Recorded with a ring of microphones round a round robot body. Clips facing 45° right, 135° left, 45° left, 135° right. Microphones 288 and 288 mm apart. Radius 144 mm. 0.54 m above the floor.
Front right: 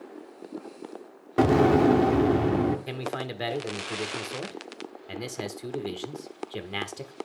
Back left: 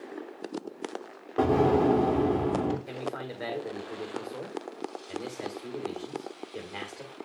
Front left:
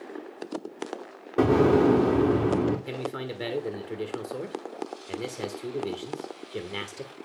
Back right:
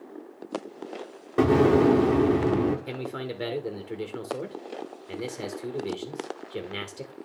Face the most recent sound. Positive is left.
turn(degrees=-40)